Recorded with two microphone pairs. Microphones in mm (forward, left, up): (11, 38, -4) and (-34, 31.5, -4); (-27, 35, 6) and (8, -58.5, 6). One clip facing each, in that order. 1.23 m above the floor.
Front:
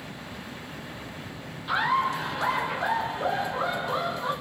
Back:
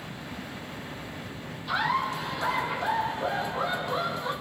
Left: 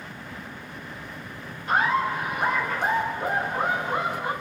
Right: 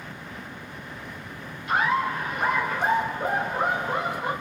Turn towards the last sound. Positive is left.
turn(degrees=-45)